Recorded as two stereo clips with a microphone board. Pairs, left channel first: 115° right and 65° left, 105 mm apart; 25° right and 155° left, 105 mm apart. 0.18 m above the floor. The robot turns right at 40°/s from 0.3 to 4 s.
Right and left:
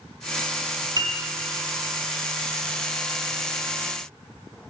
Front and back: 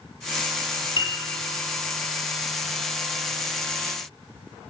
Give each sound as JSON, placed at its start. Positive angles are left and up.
{"t": 1.0, "sound": "a piano", "azimuth_deg": 20, "distance_m": 2.5}